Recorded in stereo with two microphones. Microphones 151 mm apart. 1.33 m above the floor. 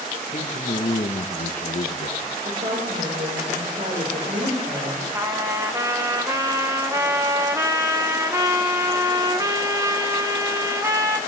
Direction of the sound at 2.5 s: 65° right (ahead or behind).